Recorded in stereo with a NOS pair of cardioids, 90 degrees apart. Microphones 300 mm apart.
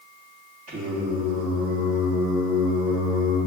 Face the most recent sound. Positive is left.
turn(degrees=-50)